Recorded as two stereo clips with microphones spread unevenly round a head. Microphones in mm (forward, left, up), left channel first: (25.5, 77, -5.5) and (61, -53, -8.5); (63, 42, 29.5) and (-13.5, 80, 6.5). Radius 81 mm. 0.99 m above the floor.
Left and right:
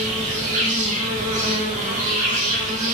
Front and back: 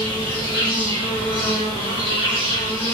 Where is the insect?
50° right, 1.1 m.